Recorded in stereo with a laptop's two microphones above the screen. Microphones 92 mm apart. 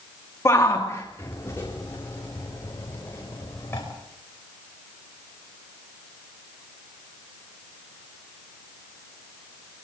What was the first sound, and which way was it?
A shout, 30° left (ahead or behind).